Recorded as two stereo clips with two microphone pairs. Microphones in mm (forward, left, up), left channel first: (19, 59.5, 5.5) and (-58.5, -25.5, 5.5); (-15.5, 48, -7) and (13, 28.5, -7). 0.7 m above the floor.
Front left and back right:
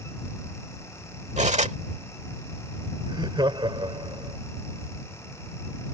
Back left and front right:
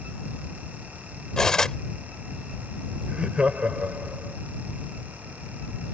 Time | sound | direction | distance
1.4 | cutlery clinking | 145° right | ?
3.1 | laughter | 90° right | ?